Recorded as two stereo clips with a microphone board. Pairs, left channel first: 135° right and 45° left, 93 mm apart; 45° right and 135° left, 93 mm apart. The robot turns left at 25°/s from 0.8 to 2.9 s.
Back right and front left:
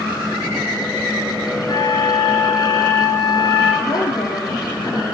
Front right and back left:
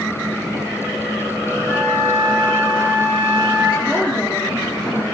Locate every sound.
1.7 s a flute: 155° right, 4.5 m; by 3.7 s 175° left, 4.5 m
3.8 s a woman speaking: 130° right, 2 m